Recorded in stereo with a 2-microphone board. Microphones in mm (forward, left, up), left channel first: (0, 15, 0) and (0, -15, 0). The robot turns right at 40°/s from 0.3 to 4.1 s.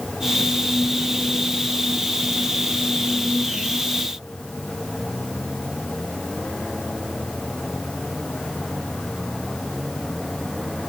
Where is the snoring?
No snoring in this recording.